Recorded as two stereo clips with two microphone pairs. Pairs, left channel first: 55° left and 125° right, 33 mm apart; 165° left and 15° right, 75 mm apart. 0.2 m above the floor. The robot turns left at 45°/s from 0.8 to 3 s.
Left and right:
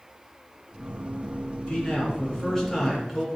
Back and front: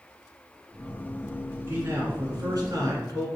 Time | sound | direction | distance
1.7 | a man speaking | 20° left | 1.4 m